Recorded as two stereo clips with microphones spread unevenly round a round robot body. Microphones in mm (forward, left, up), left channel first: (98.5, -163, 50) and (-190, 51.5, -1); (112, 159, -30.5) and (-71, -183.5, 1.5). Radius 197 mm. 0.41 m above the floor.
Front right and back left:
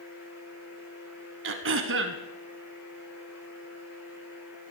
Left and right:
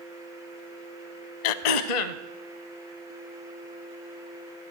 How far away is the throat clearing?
About 0.7 m.